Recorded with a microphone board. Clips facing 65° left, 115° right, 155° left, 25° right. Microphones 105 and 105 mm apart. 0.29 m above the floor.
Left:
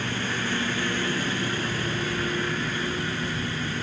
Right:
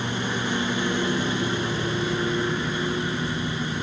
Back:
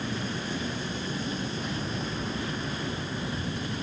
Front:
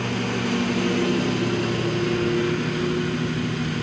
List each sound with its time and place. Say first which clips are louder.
0.0 s a lawn mower: right 2 dB, front 8 dB; 40° right